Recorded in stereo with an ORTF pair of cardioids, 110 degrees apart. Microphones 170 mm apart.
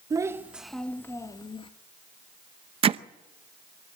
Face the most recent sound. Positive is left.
turn(degrees=-35)